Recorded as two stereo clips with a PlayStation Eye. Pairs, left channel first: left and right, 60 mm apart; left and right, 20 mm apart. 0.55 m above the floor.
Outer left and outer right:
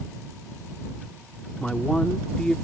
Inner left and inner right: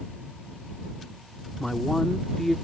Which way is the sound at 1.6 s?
15° left (ahead or behind).